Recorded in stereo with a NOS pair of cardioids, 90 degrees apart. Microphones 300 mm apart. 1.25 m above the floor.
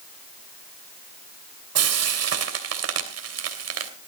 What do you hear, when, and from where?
1.8 s frying: 55° right, 3 m